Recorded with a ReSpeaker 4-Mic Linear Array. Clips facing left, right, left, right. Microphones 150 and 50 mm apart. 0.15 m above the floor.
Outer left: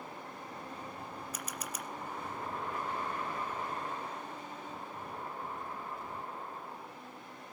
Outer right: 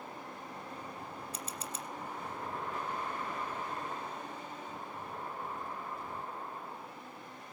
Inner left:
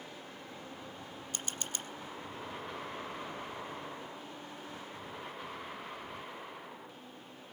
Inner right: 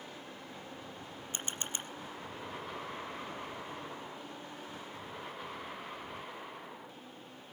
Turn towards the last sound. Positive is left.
turn(degrees=-30)  # may be behind; listen again after turning